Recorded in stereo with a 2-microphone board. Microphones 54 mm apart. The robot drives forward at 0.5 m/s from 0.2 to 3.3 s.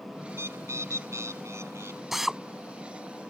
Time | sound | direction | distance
0.3 | a bird | 55° right (ahead or behind) | ?
2.1 | a drill | 5° right (ahead or behind) | ?